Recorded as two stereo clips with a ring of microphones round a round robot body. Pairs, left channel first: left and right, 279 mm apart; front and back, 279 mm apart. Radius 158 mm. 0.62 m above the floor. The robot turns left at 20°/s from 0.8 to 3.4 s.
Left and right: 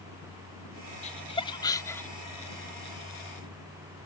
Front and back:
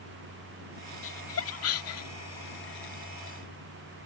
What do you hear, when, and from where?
1.0 s laughter: 30° left; by 2.1 s 5° left